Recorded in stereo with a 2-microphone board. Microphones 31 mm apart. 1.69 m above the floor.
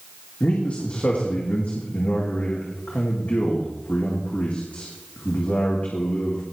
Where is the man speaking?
50° left (ahead or behind), 2.5 m.